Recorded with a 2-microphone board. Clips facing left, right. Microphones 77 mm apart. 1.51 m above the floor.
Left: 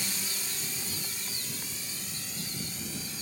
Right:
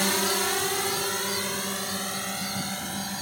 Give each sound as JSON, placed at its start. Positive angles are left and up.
{"t": 0.0, "sound": "a drone", "side_deg": -80}